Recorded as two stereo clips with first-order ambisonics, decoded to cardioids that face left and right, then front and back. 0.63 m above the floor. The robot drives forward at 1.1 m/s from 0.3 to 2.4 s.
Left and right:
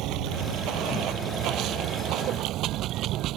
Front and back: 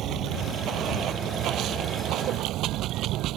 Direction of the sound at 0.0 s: 130° right.